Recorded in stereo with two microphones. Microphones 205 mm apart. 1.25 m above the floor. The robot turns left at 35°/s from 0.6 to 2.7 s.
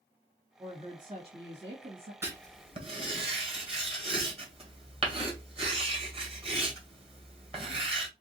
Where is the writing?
10° right (ahead or behind), 1.9 m; by 8.1 s 25° right (ahead or behind), 1.9 m.